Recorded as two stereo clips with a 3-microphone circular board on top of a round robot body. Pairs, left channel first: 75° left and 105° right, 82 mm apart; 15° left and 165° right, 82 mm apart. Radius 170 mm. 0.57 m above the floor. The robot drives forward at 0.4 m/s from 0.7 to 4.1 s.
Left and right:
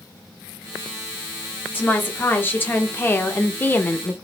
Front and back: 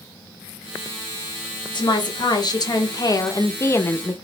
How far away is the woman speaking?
About 1.3 m.